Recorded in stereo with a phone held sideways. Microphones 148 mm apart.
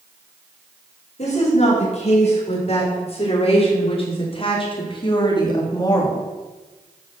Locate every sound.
1.2 s a woman speaking: 50° left (ahead or behind), 6 m; by 6.2 s 25° left (ahead or behind), 2.5 m